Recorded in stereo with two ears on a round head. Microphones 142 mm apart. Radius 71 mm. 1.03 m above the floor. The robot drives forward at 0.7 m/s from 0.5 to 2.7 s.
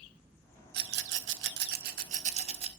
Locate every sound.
0.7 s a rattle: 65° right (ahead or behind), 0.9 m; by 2.7 s 40° right (ahead or behind), 1.2 m